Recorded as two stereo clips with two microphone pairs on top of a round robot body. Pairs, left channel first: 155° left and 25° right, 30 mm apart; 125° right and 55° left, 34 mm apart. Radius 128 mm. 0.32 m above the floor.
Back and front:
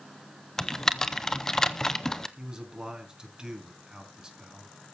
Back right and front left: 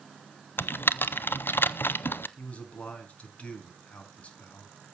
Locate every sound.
0.6 s typing on a keyboard: 135° right, 0.6 m
2.4 s a man speaking: 85° right, 4.5 m